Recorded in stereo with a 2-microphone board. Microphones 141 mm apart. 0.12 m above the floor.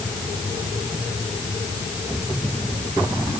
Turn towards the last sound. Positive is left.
No sound to turn to.